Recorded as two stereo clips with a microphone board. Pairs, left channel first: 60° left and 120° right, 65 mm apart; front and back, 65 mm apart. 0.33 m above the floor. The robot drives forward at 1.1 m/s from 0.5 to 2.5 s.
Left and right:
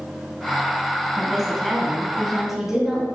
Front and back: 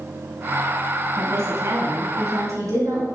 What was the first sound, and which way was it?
A woman speaking, 145° left.